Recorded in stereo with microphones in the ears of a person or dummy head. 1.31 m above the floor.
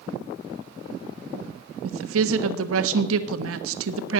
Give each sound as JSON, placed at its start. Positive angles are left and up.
{"t": 1.8, "sound": "a woman speaking", "side_deg": -80, "distance_m": 1.1}